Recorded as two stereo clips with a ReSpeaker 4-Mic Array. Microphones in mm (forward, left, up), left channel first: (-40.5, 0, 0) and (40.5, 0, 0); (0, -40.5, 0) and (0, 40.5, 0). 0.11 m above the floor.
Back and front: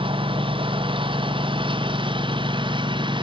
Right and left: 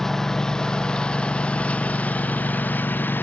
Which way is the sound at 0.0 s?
5° right.